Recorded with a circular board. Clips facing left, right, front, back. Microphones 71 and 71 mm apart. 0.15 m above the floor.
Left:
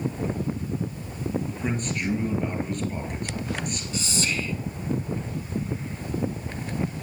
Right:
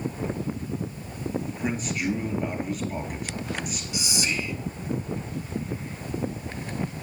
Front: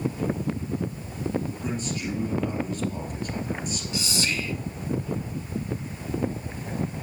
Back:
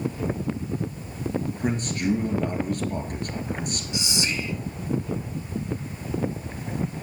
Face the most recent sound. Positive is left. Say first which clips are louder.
# even, even
turn(degrees=-145)